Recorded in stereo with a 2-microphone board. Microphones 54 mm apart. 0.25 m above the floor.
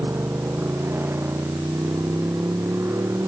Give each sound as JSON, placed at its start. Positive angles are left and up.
{"t": 0.0, "sound": "a motorcycle", "side_deg": -50}